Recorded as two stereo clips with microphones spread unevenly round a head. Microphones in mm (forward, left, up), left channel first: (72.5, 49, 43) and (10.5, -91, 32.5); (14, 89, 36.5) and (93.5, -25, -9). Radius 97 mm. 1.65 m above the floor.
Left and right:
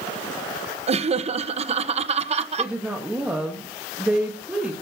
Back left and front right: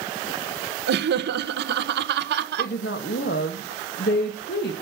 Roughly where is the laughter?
Ahead right.